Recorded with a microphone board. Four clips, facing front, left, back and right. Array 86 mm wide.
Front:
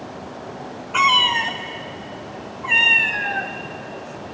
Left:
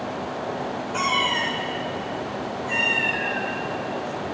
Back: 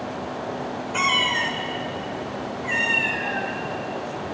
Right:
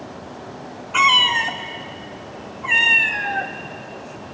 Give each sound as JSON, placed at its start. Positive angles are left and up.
{"t": 0.9, "sound": "a cat meowing", "azimuth_deg": -50, "distance_m": 0.7}